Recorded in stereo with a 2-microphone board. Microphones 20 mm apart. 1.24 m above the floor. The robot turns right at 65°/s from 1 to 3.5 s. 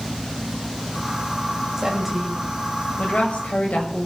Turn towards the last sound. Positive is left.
turn(degrees=90)